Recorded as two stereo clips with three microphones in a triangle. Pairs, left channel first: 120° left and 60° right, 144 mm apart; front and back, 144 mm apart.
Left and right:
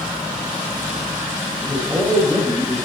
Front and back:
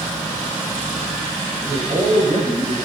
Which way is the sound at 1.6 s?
155° right.